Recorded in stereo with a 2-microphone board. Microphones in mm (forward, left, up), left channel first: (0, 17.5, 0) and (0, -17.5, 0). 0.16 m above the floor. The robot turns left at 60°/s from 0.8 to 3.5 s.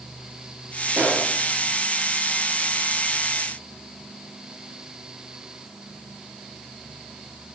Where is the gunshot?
60° right (ahead or behind), 3.5 m; by 1.3 s 70° right (ahead or behind), 3.5 m.